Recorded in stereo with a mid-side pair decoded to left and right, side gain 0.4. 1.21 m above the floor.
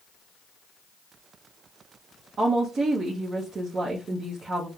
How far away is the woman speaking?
About 0.9 m.